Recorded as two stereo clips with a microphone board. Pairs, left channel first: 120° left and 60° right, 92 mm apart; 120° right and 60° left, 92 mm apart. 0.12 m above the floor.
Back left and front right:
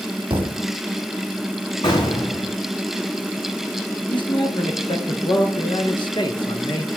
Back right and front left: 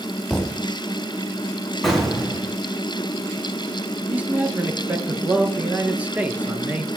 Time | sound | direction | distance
0.3 | a thud | 35° right | 2.0 m
1.8 | an explosion | 150° left | 5.5 m
4.1 | a man speaking | 130° left | 2 m